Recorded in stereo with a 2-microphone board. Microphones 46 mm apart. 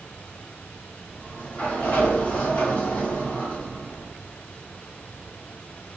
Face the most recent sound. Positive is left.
turn(degrees=30)  # may be behind; listen again after turning